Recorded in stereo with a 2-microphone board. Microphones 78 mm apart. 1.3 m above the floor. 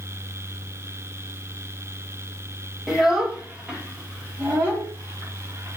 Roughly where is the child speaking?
Centre.